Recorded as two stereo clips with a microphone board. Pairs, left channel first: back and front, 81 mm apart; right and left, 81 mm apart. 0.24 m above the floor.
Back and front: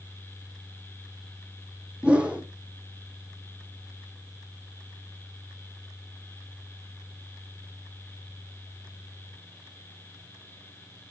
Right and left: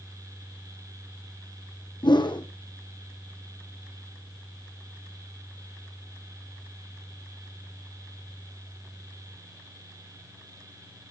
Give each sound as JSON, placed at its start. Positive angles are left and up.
{"t": 2.0, "sound": "a whoosh", "azimuth_deg": -75, "distance_m": 2.0}